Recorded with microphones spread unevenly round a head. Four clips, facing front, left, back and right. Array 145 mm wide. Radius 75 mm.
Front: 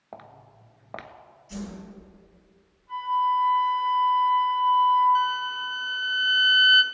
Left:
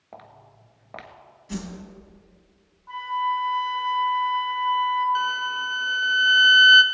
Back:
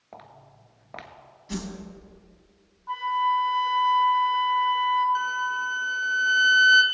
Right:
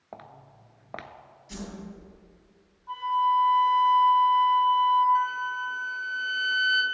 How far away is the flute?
About 3 m.